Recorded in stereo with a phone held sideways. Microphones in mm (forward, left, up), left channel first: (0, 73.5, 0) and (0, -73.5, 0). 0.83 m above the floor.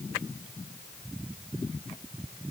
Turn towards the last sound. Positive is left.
No sound to turn to.